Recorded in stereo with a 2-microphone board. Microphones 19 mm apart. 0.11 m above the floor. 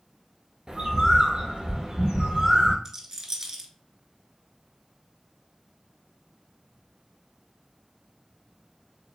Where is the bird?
45° right (ahead or behind), 0.7 m.